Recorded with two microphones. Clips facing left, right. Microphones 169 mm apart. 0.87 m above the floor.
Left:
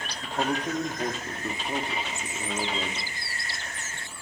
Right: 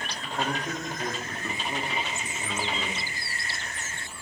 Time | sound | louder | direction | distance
0.2 | a man speaking | left 3 dB | 25° left (ahead or behind) | 2 m